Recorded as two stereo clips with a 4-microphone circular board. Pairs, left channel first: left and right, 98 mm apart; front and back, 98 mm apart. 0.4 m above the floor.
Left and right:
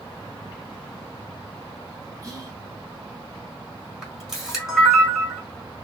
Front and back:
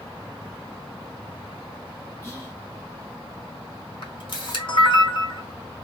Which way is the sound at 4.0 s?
5° right.